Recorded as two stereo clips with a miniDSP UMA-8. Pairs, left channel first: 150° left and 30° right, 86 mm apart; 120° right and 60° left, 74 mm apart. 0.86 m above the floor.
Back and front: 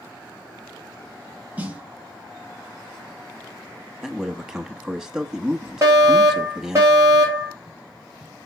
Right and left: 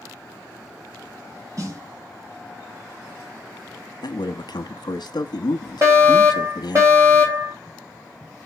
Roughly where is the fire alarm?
Ahead.